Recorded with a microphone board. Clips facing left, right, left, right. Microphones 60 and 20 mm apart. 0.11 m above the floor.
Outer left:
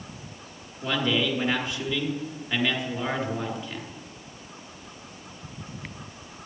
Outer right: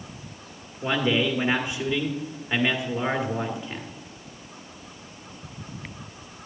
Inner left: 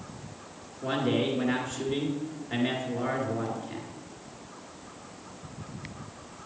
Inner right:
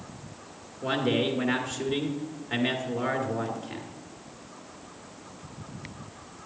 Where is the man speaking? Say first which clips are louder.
Outer right 2 dB, inner right 1 dB; 20° right (ahead or behind), 1.6 m.